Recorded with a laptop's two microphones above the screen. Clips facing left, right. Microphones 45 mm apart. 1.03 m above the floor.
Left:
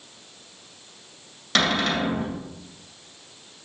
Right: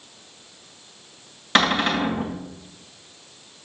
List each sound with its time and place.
1.6 s a cupboard door: 25° right (ahead or behind), 2 m